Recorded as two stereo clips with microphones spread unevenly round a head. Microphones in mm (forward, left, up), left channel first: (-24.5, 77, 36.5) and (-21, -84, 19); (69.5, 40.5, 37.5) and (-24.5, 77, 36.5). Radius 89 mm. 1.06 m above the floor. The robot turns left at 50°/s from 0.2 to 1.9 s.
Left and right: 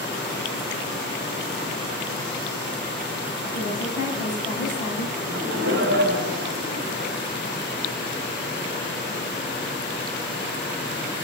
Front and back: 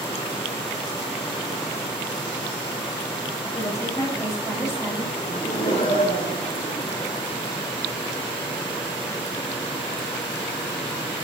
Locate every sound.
3.5 s a woman speaking: 40° left, 5 m
5.2 s laughter: 60° right, 3 m